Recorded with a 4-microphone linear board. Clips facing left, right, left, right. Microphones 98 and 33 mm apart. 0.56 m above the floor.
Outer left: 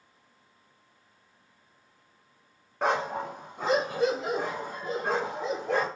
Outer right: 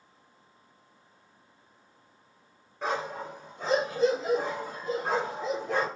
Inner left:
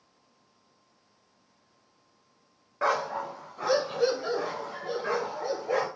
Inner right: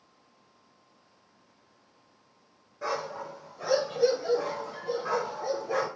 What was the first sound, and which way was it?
A dog barking, 70° left (ahead or behind).